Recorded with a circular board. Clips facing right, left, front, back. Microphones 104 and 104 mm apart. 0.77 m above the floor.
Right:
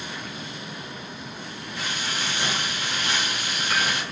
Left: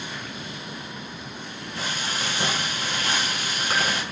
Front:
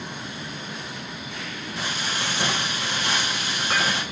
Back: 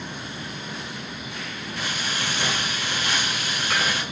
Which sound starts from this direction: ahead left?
Frying, at 1.8 s.